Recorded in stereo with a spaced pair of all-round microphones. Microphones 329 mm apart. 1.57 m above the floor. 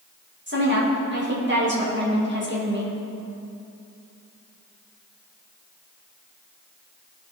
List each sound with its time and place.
0.5 s a woman speaking: 35° right (ahead or behind), 2 m